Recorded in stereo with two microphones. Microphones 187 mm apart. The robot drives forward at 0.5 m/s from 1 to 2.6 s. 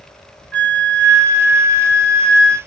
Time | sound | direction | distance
0.5 | a flute | 10° left (ahead or behind) | 0.9 m